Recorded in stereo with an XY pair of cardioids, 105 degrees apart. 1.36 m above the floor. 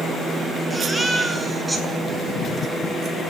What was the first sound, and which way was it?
A baby crying, 15° right.